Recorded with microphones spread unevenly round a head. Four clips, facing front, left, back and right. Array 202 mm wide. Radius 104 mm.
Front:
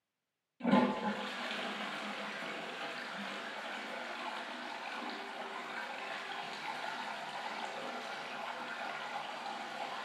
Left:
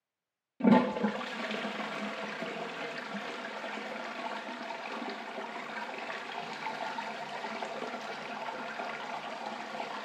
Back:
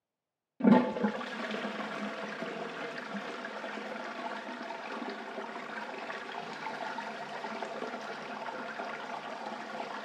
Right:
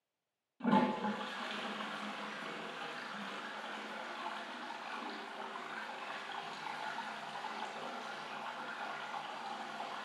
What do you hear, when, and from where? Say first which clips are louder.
0.6 s a toilet flushing: left 7 dB, back 5 dB; 135° left, 1.7 m